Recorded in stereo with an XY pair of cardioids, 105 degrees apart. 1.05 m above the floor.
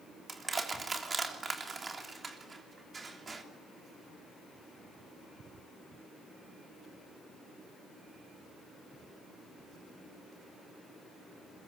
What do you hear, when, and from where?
0.3 s crushing: 30° right, 3 m